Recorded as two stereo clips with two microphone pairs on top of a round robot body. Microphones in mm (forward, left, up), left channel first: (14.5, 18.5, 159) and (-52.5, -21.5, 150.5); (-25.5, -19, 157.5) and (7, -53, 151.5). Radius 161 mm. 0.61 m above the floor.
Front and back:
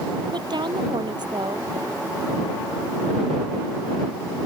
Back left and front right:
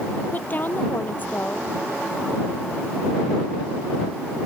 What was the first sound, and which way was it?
A woman speaking, 170° right.